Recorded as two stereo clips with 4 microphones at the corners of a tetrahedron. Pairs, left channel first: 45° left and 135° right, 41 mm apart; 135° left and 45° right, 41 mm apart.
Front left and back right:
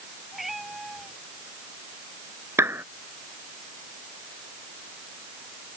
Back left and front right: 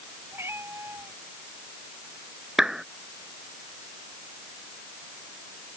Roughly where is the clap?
Behind right.